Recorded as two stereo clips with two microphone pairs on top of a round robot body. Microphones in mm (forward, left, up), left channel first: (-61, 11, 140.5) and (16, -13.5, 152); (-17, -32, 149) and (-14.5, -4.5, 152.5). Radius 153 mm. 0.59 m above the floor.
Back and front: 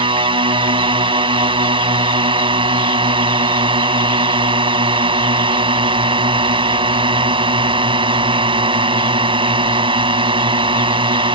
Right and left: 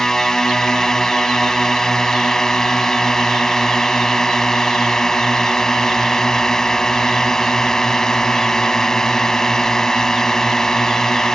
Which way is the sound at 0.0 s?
30° right.